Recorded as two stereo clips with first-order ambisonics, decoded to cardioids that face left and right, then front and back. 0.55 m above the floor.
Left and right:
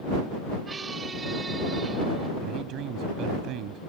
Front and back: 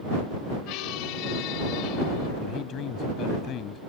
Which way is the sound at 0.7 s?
20° right.